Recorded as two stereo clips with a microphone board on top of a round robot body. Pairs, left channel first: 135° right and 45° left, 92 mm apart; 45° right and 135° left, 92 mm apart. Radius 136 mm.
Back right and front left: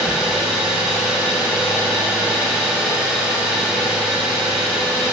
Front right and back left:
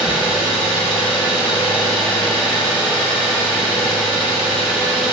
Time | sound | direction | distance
0.0 | an engine running | 35° right | 1.7 m